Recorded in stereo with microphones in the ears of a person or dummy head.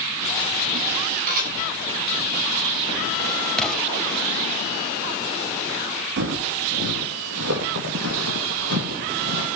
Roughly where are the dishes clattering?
Right.